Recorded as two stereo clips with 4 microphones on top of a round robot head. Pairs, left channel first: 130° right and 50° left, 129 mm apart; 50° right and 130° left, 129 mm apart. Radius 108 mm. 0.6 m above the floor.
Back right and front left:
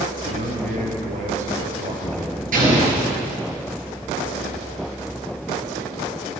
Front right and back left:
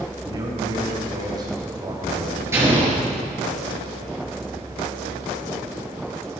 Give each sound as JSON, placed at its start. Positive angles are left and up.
{"t": 0.2, "sound": "a man speaking", "azimuth_deg": 70, "distance_m": 3.5}
{"t": 2.5, "sound": "an explosion", "azimuth_deg": 60, "distance_m": 7.5}